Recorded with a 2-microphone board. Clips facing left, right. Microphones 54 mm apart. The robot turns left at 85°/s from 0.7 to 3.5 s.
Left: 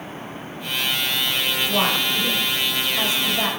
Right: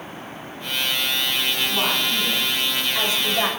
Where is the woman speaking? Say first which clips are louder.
Left 2 dB; 75° left, 4.5 m; by 3.5 s 80° right, 4.5 m.